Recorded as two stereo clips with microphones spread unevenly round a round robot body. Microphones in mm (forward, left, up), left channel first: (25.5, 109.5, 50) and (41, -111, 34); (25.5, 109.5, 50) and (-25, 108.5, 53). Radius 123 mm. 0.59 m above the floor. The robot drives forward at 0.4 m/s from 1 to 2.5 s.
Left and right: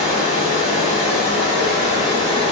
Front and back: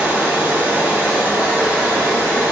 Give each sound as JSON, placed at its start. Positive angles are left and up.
{"t": 0.0, "sound": "running water", "azimuth_deg": -165, "distance_m": 1.2}